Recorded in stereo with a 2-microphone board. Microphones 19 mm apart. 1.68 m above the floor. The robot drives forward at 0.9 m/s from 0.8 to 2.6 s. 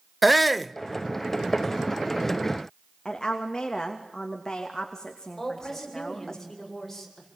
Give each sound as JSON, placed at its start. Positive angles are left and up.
{"t": 0.2, "sound": "a shout", "side_deg": 0, "distance_m": 0.6}
{"t": 3.0, "sound": "a woman speaking", "side_deg": 30, "distance_m": 2.5}
{"t": 5.4, "sound": "a woman speaking", "side_deg": 15, "distance_m": 8.0}